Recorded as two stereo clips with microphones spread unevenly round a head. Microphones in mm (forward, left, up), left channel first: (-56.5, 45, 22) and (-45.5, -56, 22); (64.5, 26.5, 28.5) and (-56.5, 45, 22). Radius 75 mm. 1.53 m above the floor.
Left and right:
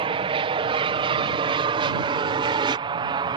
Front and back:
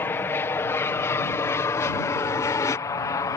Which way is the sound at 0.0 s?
80° right.